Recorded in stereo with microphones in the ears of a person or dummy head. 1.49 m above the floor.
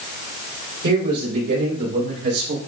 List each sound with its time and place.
0.8 s a man speaking: 50° right (ahead or behind), 6 m; by 2.6 s 55° right (ahead or behind), 4.5 m